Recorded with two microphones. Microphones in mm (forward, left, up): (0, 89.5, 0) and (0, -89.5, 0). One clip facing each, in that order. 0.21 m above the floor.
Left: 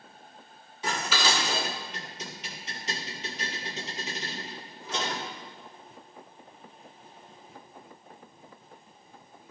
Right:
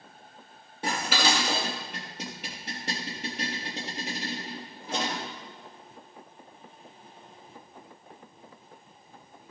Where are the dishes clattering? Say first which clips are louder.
Right 2 dB; 60° right (ahead or behind), 3 m.